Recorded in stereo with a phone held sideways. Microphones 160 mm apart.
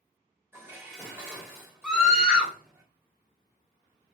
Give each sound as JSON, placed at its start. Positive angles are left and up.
{"t": 0.5, "sound": "dishes clattering", "side_deg": -15, "distance_m": 1.4}
{"t": 1.8, "sound": "a scream", "side_deg": -5, "distance_m": 0.7}